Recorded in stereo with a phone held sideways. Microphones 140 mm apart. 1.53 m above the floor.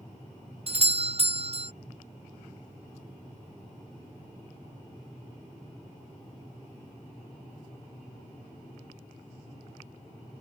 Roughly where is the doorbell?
Right.